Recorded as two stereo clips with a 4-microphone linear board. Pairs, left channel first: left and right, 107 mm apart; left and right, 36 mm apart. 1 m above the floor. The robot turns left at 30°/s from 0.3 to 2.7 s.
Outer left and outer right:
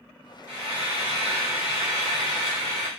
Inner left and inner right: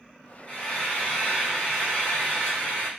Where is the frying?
140° left, 1.4 m; by 2.9 s 75° left, 1.4 m.